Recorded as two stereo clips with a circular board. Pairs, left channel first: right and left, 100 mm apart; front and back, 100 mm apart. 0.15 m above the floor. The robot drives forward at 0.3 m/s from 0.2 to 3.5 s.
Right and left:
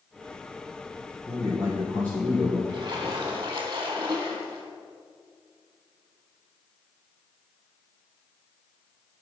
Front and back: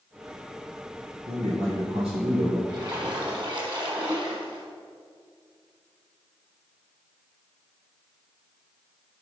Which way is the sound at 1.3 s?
165° right.